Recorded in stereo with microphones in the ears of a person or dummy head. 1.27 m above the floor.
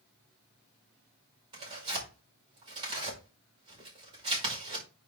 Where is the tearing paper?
30° right (ahead or behind), 5.5 m.